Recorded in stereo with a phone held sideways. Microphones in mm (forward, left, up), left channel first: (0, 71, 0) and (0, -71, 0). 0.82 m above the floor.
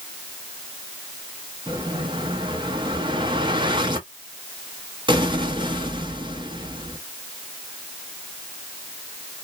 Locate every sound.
1.7 s an explosion: 30° right (ahead or behind), 0.9 m